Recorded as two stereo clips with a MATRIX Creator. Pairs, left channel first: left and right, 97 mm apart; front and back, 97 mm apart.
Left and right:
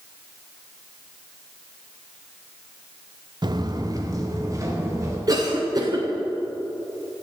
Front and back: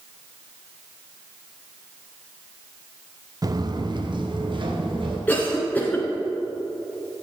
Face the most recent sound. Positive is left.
turn(degrees=-65)